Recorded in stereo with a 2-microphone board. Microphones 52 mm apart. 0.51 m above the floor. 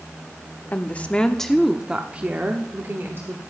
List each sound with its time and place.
0.7 s a woman speaking: 35° left (ahead or behind), 0.9 m; by 3.4 s 55° right (ahead or behind), 1.4 m